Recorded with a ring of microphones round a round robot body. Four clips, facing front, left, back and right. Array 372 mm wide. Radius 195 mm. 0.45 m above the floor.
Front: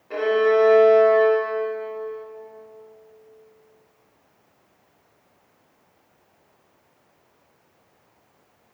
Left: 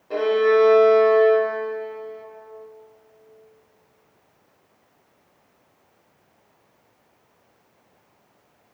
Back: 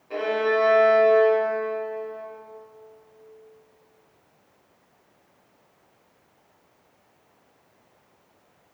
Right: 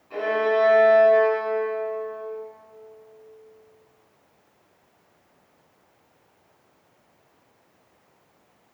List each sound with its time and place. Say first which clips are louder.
0.1 s a violin: left 5 dB, front 5 dB; 75° left, 1.6 m